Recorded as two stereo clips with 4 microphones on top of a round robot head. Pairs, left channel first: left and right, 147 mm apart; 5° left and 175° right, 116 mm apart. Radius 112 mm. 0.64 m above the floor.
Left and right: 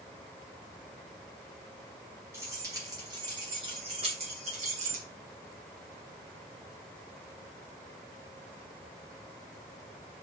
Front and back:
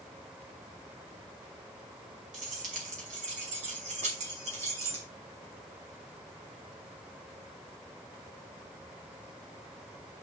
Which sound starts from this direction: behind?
Keys jangling, at 2.3 s.